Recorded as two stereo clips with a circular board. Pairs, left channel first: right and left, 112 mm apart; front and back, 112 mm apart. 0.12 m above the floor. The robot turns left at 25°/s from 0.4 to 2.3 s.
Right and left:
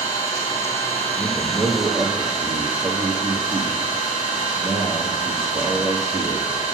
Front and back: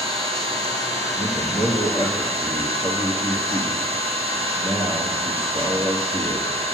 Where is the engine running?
150° right, 3 m; by 6.7 s 165° left, 3 m.